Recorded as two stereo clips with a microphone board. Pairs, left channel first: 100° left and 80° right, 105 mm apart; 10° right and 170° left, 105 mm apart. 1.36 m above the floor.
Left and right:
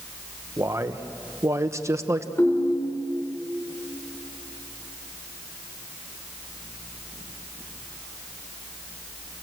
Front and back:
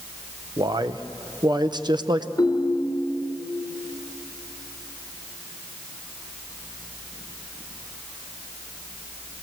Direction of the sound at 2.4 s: 45° left.